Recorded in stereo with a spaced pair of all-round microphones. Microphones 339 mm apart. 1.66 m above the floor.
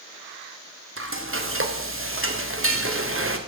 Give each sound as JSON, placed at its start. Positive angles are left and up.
{"t": 1.0, "sound": "frying", "side_deg": -40, "distance_m": 0.7}